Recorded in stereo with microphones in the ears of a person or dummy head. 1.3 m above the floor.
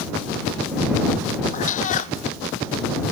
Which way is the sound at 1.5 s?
45° left (ahead or behind).